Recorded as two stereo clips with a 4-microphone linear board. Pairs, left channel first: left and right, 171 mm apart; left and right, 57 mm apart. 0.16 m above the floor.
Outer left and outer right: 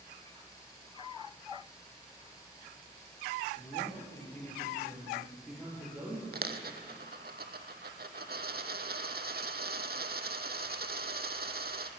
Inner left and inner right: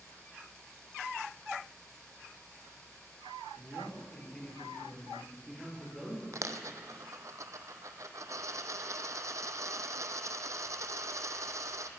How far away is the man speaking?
About 3.5 m.